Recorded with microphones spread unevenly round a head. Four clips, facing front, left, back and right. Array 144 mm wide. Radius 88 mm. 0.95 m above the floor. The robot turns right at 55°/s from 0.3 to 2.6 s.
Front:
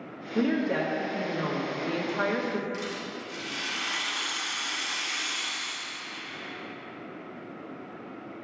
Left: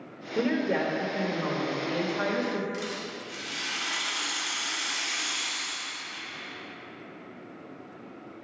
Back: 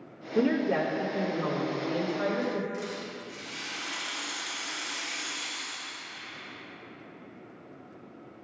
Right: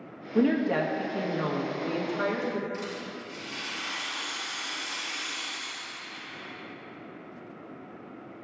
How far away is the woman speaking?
About 1.4 m.